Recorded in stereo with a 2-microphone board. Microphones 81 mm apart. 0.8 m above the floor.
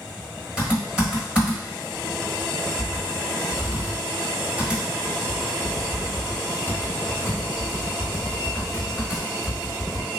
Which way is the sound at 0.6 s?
10° right (ahead or behind).